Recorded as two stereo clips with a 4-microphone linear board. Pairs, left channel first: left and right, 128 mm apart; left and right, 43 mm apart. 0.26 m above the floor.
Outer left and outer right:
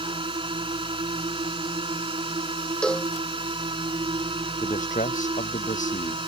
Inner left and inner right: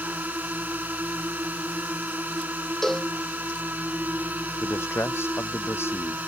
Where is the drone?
40° right (ahead or behind).